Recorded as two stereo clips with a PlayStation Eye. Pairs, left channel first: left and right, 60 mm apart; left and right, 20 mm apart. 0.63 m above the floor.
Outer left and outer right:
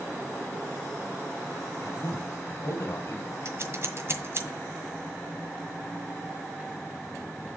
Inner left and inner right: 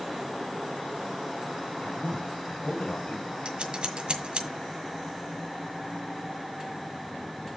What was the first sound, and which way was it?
A man speaking, 65° left (ahead or behind).